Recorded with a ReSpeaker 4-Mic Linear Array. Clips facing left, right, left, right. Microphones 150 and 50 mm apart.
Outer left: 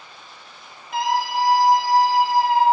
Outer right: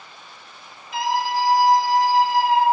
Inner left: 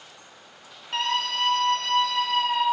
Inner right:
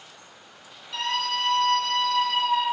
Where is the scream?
55° left (ahead or behind), 3 m; by 2.6 s 40° left (ahead or behind), 3 m.